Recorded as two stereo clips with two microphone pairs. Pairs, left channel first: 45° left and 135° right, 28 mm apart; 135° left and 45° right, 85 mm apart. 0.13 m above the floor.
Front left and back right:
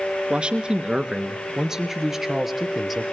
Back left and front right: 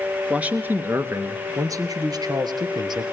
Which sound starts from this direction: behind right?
A man speaking, at 0.3 s.